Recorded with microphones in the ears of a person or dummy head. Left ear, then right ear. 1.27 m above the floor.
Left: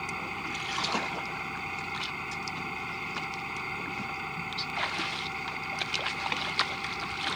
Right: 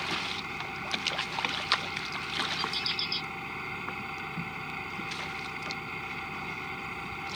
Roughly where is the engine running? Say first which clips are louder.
Right 2 dB; centre.